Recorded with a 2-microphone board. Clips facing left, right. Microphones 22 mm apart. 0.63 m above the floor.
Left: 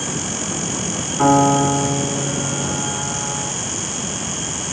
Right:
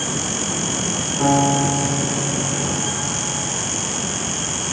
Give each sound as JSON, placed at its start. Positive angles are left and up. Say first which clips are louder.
{"t": 1.2, "sound": "a piano", "louder": "left 4 dB", "side_deg": 35, "distance_m": 4.5}